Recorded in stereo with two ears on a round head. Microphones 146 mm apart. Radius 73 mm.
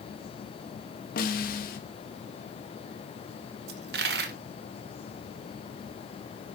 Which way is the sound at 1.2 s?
60° left (ahead or behind).